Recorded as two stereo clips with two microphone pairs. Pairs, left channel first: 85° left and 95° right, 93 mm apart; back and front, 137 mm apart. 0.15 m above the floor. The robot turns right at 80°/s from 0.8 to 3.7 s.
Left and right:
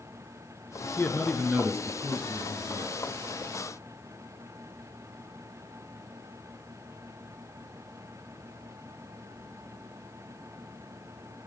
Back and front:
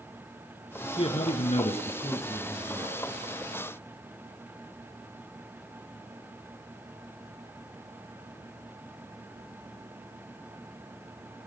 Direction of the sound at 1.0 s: 140° left.